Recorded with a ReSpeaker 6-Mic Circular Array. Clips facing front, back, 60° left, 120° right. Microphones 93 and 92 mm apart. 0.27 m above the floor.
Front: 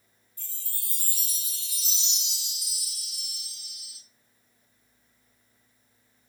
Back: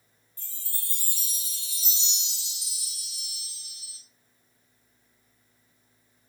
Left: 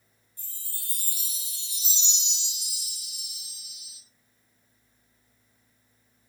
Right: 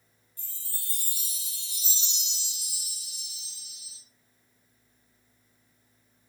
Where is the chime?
125° left, 1.9 m.